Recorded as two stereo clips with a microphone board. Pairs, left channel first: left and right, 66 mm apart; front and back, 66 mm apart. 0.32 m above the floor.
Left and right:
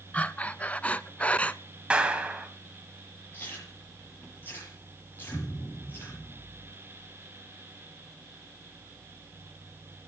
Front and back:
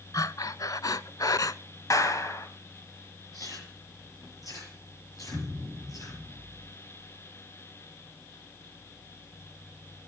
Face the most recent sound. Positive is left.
turn(degrees=60)